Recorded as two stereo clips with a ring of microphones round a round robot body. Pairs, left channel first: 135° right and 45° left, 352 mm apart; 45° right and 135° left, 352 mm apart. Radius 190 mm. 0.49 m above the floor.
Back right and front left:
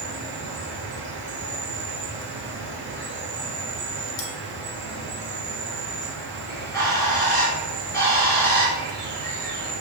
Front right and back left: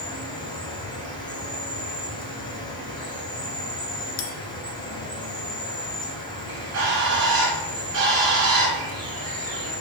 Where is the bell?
75° right, 0.6 m.